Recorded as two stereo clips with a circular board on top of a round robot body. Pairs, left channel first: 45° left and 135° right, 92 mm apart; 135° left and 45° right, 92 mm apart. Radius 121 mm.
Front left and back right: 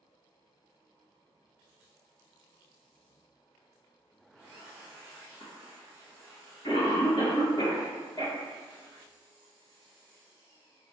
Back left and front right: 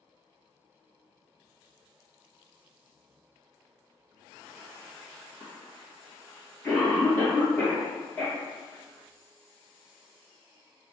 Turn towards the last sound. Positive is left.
turn(degrees=75)